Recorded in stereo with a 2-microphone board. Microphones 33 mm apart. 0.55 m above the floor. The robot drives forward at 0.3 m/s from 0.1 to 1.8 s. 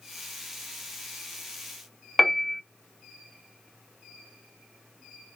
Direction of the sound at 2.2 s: 5° left (ahead or behind).